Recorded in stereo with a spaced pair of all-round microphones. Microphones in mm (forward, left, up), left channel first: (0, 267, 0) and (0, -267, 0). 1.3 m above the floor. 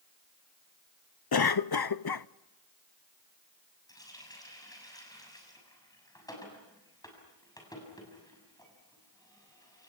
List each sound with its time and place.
1.3 s a cough: 45° left (ahead or behind), 0.6 m
3.9 s a running tap: 5° left (ahead or behind), 6.5 m